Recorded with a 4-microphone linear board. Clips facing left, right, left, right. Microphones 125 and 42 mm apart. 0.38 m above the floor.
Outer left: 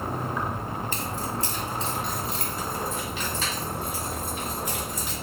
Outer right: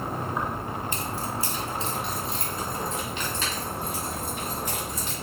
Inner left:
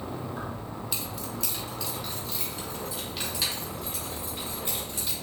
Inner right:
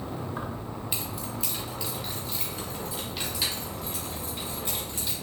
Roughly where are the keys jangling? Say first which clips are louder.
Even, inner right 1 dB; right.